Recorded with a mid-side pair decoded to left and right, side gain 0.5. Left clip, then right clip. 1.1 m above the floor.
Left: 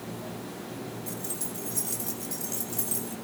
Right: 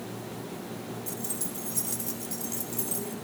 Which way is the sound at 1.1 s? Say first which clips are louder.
Even; 15° right.